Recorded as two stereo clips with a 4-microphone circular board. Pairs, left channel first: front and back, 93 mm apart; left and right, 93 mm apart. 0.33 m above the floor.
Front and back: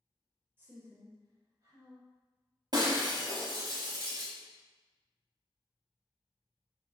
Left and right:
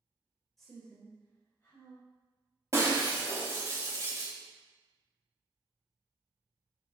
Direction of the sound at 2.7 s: 145° right.